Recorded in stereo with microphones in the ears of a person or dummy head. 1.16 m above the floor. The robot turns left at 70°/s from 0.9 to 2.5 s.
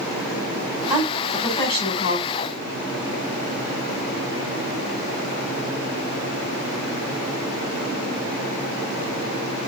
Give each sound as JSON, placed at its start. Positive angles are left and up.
{"t": 0.9, "sound": "a woman speaking", "azimuth_deg": -155, "distance_m": 3.5}